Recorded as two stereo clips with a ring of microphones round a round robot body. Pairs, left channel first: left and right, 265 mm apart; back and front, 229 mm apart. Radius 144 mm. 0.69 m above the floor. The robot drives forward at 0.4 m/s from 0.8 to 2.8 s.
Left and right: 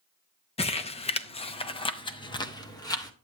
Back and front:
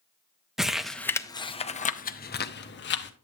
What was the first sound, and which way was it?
Crumpling, 85° left.